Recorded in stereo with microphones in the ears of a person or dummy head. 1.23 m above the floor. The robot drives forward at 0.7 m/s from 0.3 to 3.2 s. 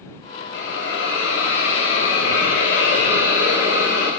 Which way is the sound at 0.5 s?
85° left.